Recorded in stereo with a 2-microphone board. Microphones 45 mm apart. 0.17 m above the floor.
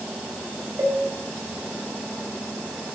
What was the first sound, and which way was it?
A cowbell, 80° right.